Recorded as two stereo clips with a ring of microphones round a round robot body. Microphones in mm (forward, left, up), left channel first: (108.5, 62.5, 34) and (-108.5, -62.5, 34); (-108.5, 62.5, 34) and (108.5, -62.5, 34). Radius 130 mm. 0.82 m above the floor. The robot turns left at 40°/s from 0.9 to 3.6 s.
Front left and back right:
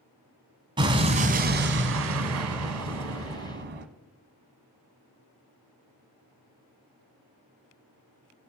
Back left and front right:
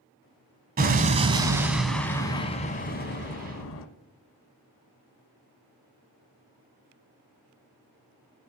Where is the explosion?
80° right, 1.0 m; by 3.9 s 175° left, 1.0 m.